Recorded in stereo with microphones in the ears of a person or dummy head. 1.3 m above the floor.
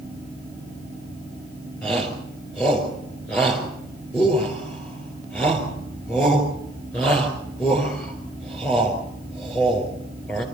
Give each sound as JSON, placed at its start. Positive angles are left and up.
{"t": 1.8, "sound": "a shout", "side_deg": 20, "distance_m": 4.5}